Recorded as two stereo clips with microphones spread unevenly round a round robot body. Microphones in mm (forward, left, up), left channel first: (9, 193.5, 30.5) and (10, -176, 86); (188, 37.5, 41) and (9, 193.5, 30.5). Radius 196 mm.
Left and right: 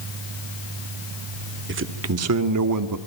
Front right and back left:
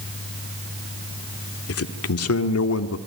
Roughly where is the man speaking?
Ahead right.